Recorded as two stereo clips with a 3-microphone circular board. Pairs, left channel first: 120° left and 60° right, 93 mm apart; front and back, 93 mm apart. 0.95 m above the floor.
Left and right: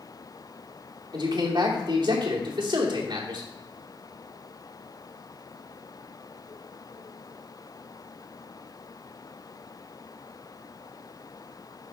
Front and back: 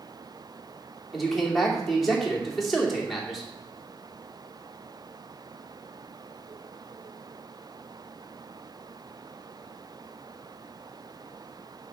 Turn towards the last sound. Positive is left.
turn(degrees=-90)